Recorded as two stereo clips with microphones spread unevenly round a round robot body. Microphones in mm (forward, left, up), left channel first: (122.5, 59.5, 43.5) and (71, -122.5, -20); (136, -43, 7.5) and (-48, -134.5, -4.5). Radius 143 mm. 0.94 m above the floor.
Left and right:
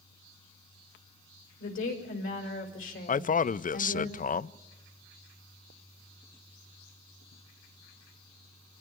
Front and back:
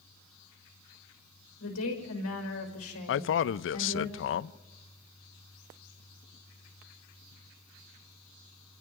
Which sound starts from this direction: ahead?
A man speaking, at 3.1 s.